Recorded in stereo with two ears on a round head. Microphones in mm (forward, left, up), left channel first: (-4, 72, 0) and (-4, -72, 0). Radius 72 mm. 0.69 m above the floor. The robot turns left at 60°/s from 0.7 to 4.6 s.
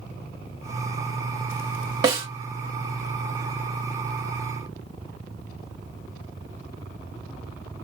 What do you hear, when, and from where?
2.0 s a snare drum: 25° right (ahead or behind), 1.2 m; by 2.3 s 40° right (ahead or behind), 1.2 m